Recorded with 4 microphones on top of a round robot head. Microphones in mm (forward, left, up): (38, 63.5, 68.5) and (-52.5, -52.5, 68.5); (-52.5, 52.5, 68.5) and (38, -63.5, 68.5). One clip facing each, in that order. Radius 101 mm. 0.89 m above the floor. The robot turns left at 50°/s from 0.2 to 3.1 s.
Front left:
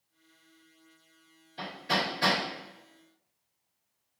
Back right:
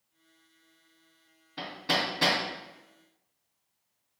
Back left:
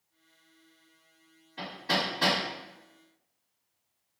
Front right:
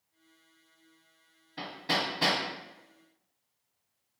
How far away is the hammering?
About 1.5 m.